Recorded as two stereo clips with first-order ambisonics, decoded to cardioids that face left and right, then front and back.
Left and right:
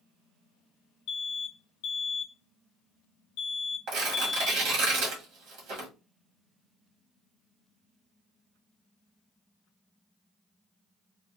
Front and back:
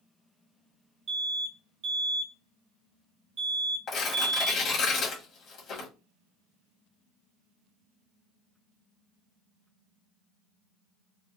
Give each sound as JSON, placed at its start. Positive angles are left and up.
{"t": 1.1, "sound": "an alarm", "azimuth_deg": 130, "distance_m": 0.8}
{"t": 3.9, "sound": "tearing paper", "azimuth_deg": -55, "distance_m": 1.8}